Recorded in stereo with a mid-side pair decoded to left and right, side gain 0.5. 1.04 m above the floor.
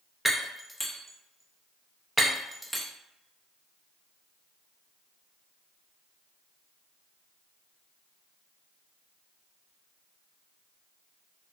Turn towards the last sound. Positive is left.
turn(degrees=0)